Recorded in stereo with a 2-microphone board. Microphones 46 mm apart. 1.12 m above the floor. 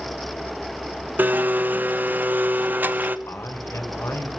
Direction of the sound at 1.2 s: 40° right (ahead or behind).